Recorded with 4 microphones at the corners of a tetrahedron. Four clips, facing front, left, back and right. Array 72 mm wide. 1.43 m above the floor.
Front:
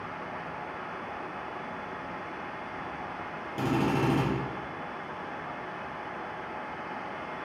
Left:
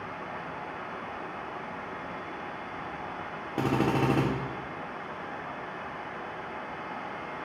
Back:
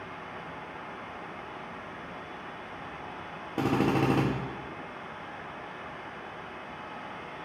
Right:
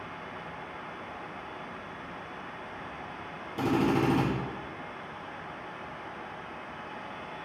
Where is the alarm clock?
I don't hear an alarm clock.